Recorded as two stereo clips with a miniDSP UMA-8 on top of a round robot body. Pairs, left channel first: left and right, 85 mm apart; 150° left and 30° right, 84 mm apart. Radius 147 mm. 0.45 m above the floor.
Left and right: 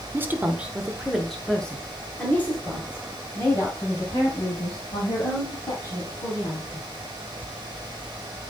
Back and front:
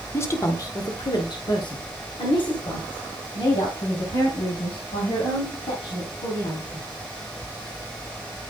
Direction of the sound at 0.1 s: 150° right.